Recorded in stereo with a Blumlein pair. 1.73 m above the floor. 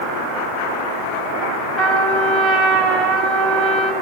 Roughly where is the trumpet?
Ahead.